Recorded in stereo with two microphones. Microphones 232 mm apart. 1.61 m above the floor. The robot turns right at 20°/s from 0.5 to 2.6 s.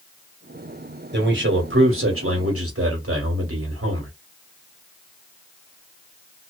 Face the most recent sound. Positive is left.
turn(degrees=-75)  # may be behind; listen again after turning